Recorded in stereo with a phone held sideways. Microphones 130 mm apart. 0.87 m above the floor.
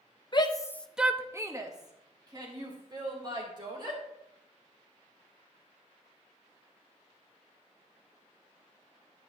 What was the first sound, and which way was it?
A shout, 35° left (ahead or behind).